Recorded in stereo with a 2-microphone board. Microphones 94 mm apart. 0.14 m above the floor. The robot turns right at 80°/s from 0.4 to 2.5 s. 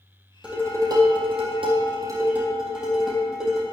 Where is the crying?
I don't hear crying.